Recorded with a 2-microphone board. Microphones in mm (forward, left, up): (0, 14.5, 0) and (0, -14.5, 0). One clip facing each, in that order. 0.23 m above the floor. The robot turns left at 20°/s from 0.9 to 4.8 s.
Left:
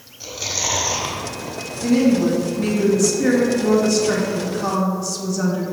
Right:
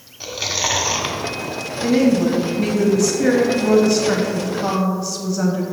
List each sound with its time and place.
0.2 s chewing: 35° right (ahead or behind), 1.0 m; by 1.5 s 30° right (ahead or behind), 1.0 m
1.8 s a woman speaking: 20° right (ahead or behind), 1.1 m; by 5.6 s 15° right (ahead or behind), 1.1 m